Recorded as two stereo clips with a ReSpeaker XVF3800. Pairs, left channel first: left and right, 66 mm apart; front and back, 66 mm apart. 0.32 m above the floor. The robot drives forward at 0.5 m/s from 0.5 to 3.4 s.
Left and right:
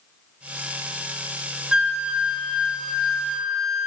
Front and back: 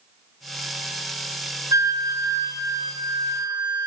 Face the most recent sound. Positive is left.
turn(degrees=-175)